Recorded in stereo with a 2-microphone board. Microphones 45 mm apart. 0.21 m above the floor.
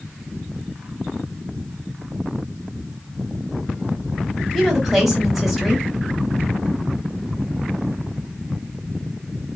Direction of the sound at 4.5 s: 5° right (ahead or behind).